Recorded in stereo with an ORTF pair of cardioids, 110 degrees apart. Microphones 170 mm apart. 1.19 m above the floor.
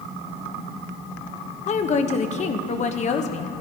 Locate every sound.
1.7 s a woman speaking: 45° left, 1.0 m